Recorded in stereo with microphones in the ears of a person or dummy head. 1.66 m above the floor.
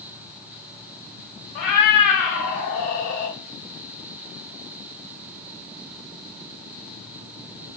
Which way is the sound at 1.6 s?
40° left (ahead or behind).